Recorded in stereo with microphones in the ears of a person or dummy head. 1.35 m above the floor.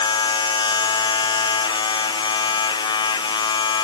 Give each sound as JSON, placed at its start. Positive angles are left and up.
{"t": 0.0, "sound": "a machine running", "side_deg": 25}